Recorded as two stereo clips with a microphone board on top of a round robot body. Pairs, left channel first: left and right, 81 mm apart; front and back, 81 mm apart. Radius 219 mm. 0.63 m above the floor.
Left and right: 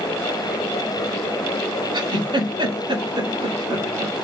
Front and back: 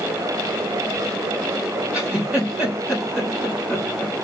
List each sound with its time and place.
1.9 s a giggle: 105° right, 4 m